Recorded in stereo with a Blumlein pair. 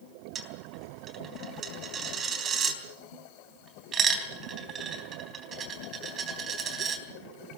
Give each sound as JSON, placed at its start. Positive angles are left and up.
{"t": 0.3, "sound": "a dropped coin", "azimuth_deg": -25, "distance_m": 3.5}